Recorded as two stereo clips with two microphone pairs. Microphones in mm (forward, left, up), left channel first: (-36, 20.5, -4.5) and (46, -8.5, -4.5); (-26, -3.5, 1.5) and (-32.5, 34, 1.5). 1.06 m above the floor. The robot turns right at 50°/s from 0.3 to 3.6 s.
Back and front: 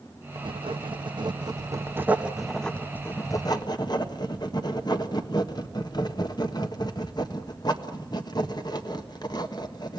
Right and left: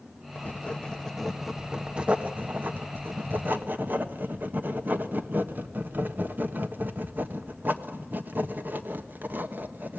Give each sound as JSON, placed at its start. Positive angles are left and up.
{"t": 0.3, "sound": "writing", "azimuth_deg": -35, "distance_m": 1.4}